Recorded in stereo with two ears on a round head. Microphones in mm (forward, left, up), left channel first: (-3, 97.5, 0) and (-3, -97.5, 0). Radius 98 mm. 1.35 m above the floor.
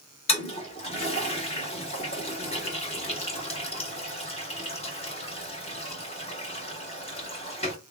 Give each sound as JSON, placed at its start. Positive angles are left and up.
{"t": 0.3, "sound": "a toilet flushing", "side_deg": 30, "distance_m": 1.6}